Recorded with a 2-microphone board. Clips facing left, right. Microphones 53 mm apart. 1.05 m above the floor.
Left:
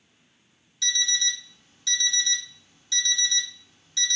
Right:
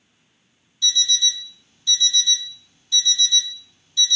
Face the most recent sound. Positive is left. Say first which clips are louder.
# right 4 dB
turn(degrees=75)  # may be behind; listen again after turning